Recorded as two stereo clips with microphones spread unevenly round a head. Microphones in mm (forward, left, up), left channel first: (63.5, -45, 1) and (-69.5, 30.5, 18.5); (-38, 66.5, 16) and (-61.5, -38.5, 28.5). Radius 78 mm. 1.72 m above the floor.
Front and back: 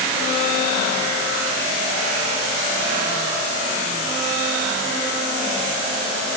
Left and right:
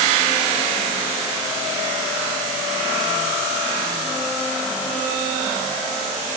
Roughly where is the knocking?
I don't hear knocking.